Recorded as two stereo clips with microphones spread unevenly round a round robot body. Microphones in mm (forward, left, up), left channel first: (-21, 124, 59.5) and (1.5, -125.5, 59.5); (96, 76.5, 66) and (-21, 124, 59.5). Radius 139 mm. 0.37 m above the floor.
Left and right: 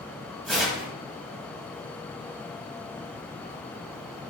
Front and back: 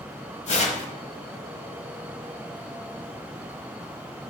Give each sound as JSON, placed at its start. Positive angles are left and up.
{"t": 0.5, "sound": "tearing paper", "azimuth_deg": 5, "distance_m": 1.4}